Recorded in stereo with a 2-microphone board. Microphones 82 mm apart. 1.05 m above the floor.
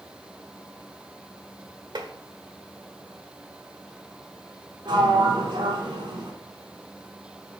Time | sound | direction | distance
1.9 | tapping | 70° right (ahead or behind) | 1.3 m
4.8 | a sliding door | 70° right (ahead or behind) | 3.5 m